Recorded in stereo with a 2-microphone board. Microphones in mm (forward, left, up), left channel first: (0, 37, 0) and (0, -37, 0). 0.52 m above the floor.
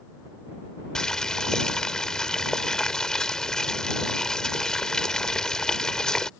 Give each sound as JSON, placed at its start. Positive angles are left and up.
{"t": 0.9, "sound": "boiling", "side_deg": 10}